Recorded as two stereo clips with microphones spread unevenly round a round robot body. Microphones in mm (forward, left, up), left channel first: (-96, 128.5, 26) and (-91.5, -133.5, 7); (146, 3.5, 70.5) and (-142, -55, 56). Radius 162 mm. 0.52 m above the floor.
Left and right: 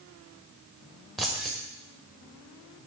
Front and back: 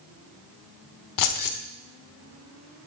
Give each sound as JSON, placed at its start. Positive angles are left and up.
{"t": 1.2, "sound": "keys jangling", "azimuth_deg": 0, "distance_m": 1.1}